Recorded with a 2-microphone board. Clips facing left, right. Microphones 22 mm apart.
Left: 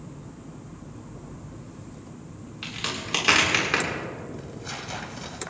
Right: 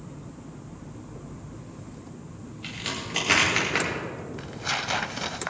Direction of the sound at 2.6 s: 80° left.